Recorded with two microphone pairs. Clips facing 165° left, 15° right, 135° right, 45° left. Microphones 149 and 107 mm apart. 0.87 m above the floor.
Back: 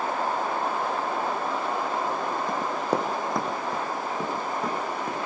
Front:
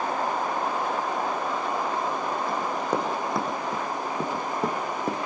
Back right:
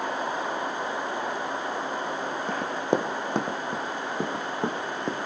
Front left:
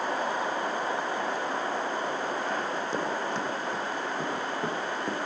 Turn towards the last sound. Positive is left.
turn(degrees=-65)